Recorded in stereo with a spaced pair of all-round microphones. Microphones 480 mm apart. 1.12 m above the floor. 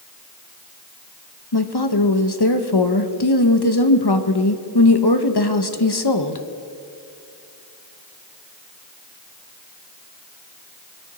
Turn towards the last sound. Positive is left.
turn(degrees=60)  # may be behind; listen again after turning